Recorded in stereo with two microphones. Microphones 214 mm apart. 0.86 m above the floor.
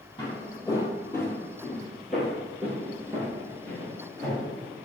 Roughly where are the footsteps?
Centre.